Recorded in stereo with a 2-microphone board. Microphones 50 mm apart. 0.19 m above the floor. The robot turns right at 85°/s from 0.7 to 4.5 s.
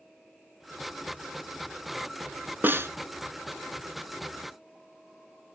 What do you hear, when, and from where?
2.6 s a snare drum: 40° right (ahead or behind), 0.7 m; by 2.9 s 60° right (ahead or behind), 0.7 m